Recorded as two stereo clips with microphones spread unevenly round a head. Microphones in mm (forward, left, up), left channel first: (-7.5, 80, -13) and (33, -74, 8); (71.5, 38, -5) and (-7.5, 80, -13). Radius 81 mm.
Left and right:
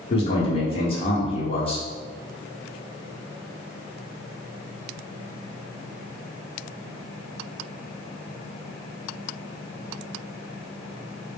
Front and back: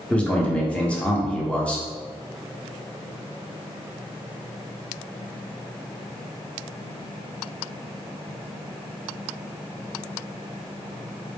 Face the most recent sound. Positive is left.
turn(degrees=45)